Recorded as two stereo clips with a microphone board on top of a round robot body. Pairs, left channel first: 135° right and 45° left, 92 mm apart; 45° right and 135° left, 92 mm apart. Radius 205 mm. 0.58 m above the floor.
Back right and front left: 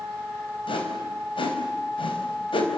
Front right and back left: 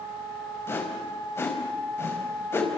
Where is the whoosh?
110° right, 4 m.